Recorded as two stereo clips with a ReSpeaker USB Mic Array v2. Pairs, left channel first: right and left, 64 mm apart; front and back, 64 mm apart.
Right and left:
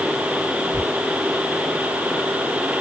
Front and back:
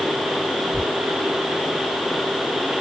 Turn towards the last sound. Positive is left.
turn(degrees=160)